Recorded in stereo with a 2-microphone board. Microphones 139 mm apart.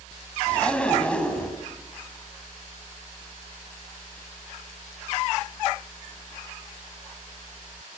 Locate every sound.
0.5 s a zipper: 10° left (ahead or behind), 3 m